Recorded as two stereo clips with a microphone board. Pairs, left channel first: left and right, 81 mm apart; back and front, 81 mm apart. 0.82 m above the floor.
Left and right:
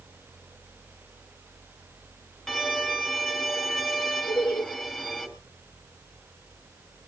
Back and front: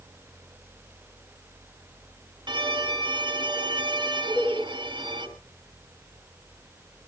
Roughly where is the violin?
Ahead.